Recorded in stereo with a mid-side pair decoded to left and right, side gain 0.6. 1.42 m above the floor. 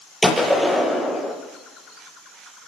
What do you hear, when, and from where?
0.2 s a gunshot: straight ahead, 8.5 m